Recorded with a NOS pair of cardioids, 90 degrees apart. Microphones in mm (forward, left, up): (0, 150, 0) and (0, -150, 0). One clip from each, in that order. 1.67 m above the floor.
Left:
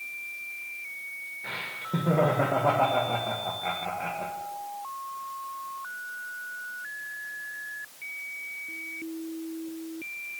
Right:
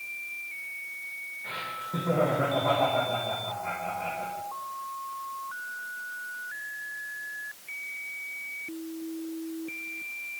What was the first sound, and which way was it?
Laughter, 35° left.